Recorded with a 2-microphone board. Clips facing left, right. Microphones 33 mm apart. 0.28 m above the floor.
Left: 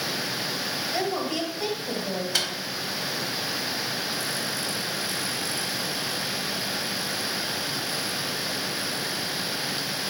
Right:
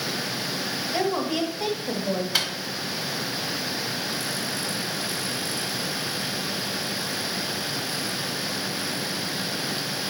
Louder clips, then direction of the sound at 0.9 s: Right 4 dB; 10° right (ahead or behind).